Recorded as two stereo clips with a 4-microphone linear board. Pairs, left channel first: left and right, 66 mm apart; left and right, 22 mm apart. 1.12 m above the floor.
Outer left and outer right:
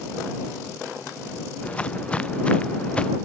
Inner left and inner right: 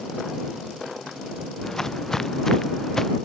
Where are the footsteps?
20° left (ahead or behind).